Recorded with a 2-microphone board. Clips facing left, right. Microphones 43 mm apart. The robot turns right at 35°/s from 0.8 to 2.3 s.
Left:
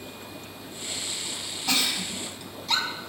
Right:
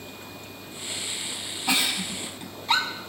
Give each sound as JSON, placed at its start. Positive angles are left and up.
{"t": 1.7, "sound": "a giggle", "side_deg": -20, "distance_m": 1.7}